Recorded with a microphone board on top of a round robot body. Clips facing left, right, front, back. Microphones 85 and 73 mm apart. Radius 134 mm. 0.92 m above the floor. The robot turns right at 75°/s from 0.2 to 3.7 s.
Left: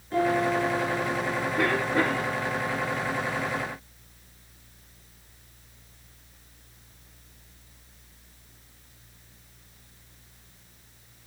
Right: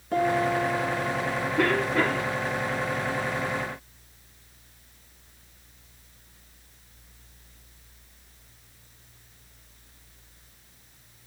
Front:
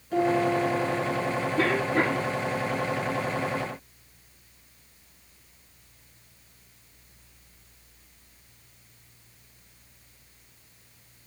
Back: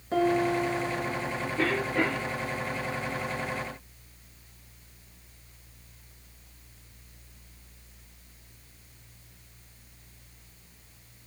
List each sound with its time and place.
0.1 s a piano: 120° right, 5 m; by 1.5 s 25° right, 5 m
1.6 s a cough: straight ahead, 2.5 m; by 2.3 s 55° left, 2.5 m